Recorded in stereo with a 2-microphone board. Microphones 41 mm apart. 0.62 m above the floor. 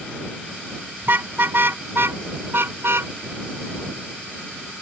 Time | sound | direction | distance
1.0 | a car horn | 55° right (ahead or behind) | ?